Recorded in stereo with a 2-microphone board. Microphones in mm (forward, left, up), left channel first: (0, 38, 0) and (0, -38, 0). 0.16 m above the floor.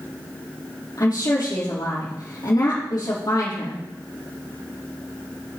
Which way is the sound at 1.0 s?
55° left (ahead or behind).